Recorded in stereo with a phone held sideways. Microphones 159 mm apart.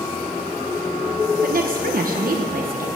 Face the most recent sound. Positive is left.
turn(degrees=-60)  # may be behind; listen again after turning